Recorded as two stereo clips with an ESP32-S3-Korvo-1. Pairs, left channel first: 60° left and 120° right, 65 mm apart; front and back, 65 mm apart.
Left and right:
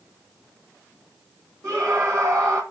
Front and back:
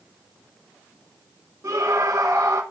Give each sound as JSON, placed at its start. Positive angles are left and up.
{"t": 1.6, "sound": "a scream", "azimuth_deg": -150, "distance_m": 1.9}